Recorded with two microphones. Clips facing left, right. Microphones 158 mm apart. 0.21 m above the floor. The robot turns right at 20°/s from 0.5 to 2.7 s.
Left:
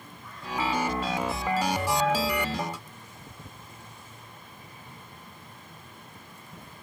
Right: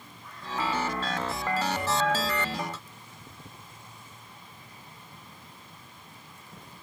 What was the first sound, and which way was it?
Only background noise.